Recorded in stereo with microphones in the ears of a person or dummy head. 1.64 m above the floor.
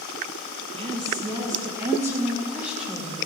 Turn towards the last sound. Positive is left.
turn(degrees=5)  # may be behind; listen again after turning